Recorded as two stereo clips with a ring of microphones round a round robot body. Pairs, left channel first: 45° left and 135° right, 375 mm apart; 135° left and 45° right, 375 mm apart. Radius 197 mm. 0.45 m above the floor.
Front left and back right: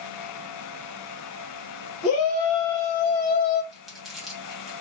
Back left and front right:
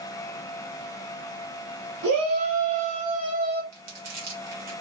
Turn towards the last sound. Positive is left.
turn(degrees=-45)